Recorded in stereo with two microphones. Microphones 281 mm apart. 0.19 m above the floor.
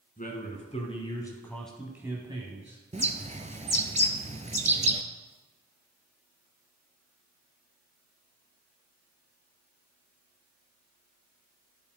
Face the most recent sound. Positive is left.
turn(degrees=-25)  # may be behind; listen again after turning